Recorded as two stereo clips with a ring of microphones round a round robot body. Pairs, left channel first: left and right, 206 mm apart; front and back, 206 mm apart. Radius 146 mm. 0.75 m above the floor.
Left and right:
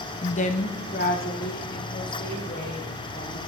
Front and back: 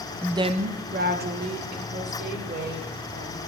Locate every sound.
0.2 s a woman speaking: 100° left, 0.6 m; by 3.4 s 150° left, 3.5 m